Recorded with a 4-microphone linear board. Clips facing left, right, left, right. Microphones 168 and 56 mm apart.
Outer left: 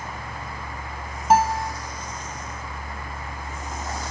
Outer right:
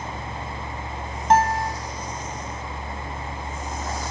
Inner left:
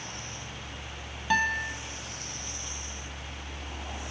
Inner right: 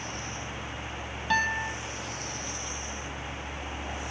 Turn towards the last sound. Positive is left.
turn(degrees=5)  # may be behind; listen again after turning